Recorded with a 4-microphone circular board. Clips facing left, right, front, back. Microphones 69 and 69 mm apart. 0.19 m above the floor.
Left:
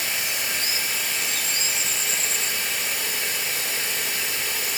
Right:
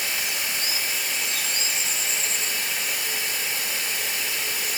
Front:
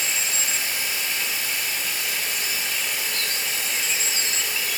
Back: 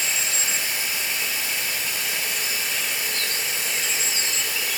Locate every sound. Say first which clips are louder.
0.0 s running water: left 1 dB, even; 110° left, 2 m